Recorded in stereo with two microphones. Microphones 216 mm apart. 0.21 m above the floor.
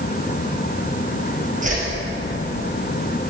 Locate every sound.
1.6 s a whoosh: 35° right (ahead or behind), 1.7 m